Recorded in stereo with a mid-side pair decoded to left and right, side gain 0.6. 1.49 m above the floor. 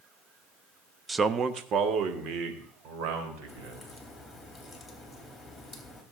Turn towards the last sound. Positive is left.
turn(degrees=5)